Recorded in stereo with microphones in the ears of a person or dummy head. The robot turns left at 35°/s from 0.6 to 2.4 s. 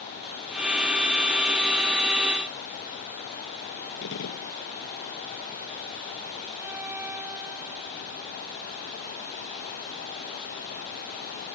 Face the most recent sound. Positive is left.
turn(degrees=-10)  # may be behind; listen again after turning